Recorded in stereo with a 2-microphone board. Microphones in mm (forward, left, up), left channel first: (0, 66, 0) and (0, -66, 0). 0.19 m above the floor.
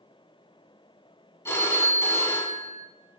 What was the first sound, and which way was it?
A phone ringing, 20° left (ahead or behind).